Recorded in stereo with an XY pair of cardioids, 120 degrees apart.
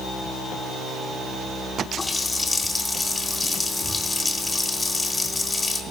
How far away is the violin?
No violin in this recording.